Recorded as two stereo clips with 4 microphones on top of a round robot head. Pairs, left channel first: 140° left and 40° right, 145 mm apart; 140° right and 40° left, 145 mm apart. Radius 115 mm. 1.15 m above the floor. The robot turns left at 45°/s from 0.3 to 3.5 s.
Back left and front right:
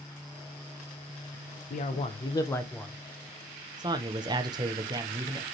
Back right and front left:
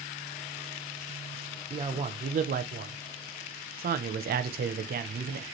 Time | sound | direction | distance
1.7 | a man speaking | 105° left | 0.6 m